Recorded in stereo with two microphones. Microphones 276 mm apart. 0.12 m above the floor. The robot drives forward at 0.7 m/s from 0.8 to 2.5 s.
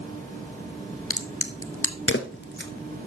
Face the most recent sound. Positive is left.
turn(degrees=45)  # may be behind; listen again after turning